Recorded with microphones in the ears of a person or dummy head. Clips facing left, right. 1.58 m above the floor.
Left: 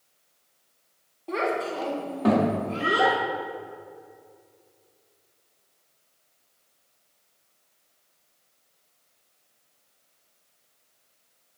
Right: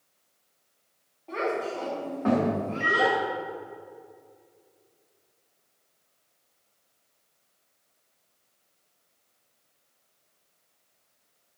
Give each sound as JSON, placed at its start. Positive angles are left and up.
{"t": 1.3, "sound": "a child speaking", "side_deg": 60, "distance_m": 1.8}
{"t": 2.8, "sound": "a microwave", "side_deg": -50, "distance_m": 0.6}